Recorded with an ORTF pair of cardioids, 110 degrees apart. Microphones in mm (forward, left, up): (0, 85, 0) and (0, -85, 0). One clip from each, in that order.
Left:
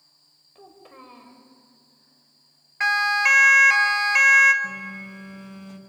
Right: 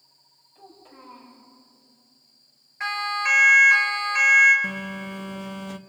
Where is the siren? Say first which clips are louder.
Left 6 dB; 45° left, 2.5 m.